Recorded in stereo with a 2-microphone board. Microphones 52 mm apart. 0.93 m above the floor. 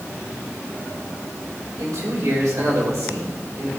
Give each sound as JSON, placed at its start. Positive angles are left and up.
{"t": 1.8, "sound": "a man speaking", "side_deg": -85, "distance_m": 3.5}